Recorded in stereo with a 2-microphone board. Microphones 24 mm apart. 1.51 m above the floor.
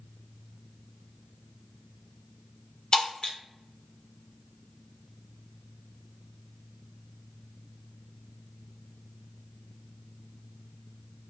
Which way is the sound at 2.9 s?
35° left (ahead or behind).